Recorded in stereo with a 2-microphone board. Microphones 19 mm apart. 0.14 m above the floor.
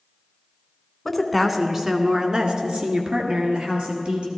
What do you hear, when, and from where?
1.1 s a woman speaking: 10° left (ahead or behind), 1.0 m; by 4.3 s 70° right (ahead or behind), 3 m